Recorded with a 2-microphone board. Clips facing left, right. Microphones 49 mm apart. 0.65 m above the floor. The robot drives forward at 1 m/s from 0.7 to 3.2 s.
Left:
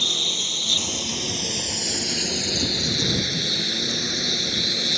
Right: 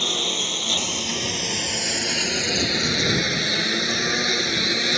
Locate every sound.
0.0 s a lawn mower: 35° right (ahead or behind); by 5.0 s 70° right (ahead or behind)